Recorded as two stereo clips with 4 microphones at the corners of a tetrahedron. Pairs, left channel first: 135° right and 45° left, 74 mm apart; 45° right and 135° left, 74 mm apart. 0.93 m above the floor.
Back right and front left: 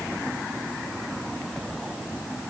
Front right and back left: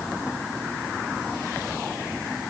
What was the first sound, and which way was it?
Only background noise.